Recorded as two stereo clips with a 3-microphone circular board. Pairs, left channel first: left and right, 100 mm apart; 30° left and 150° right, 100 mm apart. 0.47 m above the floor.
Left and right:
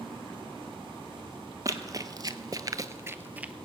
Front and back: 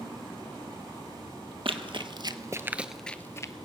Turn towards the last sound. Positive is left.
turn(degrees=-15)